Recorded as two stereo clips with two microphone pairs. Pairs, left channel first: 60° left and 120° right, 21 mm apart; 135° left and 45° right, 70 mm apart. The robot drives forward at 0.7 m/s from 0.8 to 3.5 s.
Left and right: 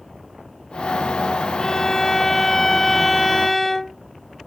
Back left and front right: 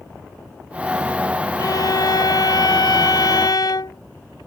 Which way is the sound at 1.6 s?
120° left.